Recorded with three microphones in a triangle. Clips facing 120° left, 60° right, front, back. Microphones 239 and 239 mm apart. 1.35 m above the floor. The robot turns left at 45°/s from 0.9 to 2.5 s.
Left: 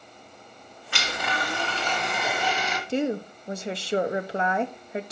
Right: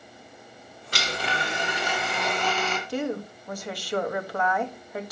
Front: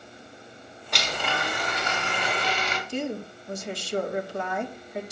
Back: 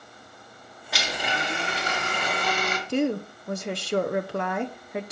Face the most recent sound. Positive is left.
turn(degrees=-175)